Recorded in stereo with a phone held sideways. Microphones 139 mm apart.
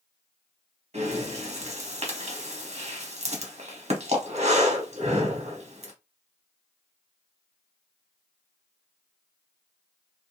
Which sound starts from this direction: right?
Breathing, at 0.9 s.